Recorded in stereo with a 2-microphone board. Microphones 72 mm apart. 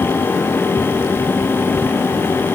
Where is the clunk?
No clunk in this recording.